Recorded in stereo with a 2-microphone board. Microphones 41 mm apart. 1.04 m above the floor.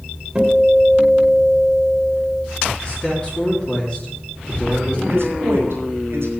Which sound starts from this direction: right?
A man speaking, at 5.1 s.